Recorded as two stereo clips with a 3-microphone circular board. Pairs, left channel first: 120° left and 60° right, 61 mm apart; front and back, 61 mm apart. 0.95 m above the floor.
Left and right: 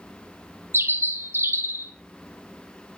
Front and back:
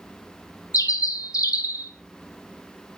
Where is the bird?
15° right, 1.2 m.